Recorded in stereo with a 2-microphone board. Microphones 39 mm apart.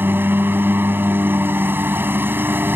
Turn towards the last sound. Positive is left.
turn(degrees=-60)  # may be behind; listen again after turning